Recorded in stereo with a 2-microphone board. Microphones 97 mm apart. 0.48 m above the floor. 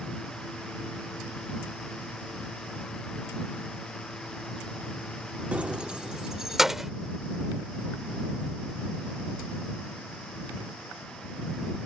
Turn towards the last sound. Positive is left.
turn(degrees=-5)  # may be behind; listen again after turning